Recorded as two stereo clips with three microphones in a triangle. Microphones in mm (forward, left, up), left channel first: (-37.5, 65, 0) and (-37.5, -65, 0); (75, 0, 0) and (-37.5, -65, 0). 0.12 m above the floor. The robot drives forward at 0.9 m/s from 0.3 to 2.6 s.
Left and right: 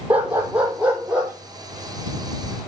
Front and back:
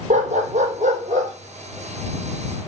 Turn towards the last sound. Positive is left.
turn(degrees=-175)